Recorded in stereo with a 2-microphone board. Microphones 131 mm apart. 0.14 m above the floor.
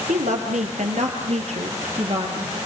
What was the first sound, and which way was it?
A woman speaking, 70° right (ahead or behind).